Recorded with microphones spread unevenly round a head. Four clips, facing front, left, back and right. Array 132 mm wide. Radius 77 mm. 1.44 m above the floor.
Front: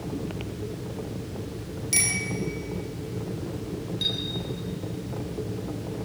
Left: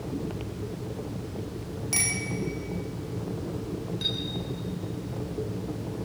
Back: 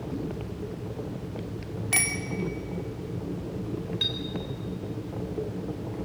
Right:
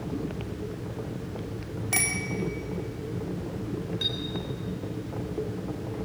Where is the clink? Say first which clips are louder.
Even, front 1 dB; 115° right, 4 m.